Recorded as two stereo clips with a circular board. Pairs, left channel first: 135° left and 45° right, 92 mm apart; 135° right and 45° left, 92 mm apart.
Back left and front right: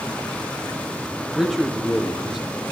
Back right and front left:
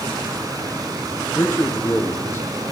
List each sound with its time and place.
1.4 s a man speaking: 125° right, 1.5 m